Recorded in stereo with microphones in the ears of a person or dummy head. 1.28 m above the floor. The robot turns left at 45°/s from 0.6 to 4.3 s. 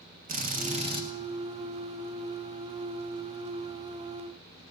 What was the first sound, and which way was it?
A drill, 40° right (ahead or behind).